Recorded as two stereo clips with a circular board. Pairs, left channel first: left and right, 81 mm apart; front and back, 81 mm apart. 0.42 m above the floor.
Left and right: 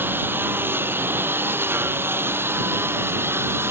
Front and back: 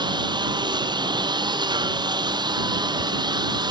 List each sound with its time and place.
0.0 s a lawn mower: 155° right; by 3.7 s 150° right